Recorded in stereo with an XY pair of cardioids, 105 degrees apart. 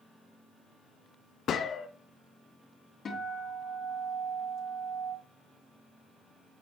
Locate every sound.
1.5 s a gunshot: 60° left, 0.8 m
3.0 s a guitar: 50° left, 3 m